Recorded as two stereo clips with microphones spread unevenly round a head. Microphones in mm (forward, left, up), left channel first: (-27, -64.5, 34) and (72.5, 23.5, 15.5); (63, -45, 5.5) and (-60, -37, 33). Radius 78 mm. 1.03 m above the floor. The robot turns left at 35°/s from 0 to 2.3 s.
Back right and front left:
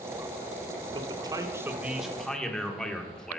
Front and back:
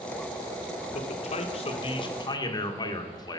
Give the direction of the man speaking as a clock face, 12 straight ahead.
12 o'clock.